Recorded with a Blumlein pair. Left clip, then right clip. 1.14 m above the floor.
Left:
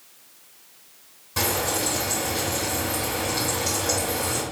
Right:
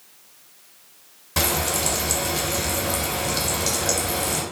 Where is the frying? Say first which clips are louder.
Right 1 dB; 25° right, 1.4 m.